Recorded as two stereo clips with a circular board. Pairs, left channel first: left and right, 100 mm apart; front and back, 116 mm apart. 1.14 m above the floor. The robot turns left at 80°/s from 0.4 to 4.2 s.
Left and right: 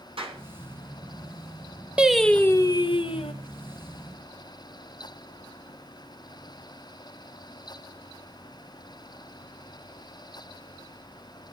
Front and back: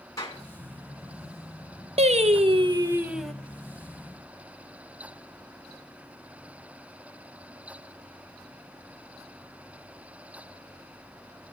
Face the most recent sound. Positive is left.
turn(degrees=15)